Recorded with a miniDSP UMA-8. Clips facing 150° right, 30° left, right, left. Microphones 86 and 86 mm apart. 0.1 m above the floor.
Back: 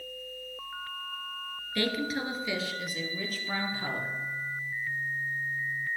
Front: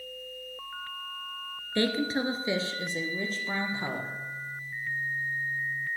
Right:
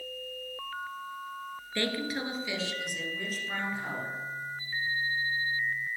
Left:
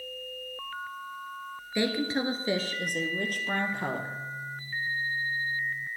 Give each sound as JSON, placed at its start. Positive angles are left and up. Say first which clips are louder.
{"t": 1.8, "sound": "a woman speaking", "louder": "front 3 dB, left 4 dB", "azimuth_deg": 25, "distance_m": 1.3}